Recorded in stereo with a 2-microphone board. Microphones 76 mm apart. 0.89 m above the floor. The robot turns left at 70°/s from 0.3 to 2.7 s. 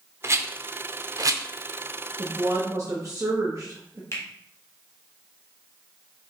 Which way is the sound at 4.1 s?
40° left (ahead or behind).